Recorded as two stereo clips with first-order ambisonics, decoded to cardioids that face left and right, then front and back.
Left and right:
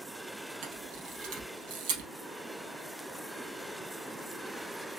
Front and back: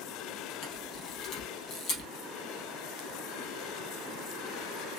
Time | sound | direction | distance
0.6 | a camera shutter | 65° right | 3 m